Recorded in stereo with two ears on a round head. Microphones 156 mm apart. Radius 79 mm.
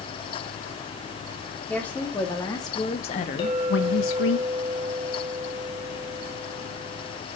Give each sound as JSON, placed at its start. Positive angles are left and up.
{"t": 1.7, "sound": "a woman speaking", "side_deg": 5, "distance_m": 3.0}
{"t": 3.4, "sound": "a clink", "side_deg": 30, "distance_m": 2.0}